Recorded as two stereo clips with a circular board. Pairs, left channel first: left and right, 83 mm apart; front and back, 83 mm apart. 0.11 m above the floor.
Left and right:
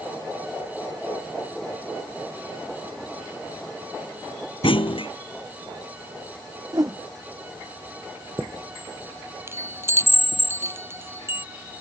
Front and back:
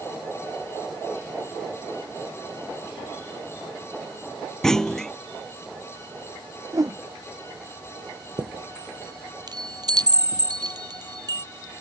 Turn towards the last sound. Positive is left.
turn(degrees=-150)